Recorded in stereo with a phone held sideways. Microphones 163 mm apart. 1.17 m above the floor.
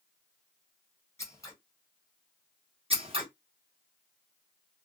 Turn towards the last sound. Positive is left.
turn(degrees=-35)  # may be behind; listen again after turning